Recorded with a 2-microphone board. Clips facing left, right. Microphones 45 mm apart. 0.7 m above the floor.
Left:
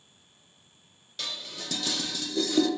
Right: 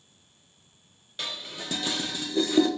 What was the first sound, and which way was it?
Dishes clattering, 25° right (ahead or behind).